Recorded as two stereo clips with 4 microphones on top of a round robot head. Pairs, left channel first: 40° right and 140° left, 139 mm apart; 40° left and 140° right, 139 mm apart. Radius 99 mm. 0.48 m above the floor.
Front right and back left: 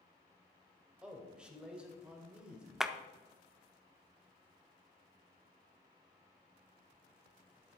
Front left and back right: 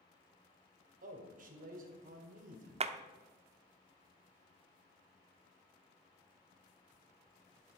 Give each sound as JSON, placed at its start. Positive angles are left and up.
{"t": 1.0, "sound": "a man speaking", "azimuth_deg": -140, "distance_m": 2.5}
{"t": 2.8, "sound": "a clap", "azimuth_deg": -135, "distance_m": 1.0}